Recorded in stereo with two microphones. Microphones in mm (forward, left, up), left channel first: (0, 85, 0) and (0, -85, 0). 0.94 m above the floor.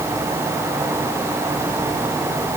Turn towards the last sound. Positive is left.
No sound to turn to.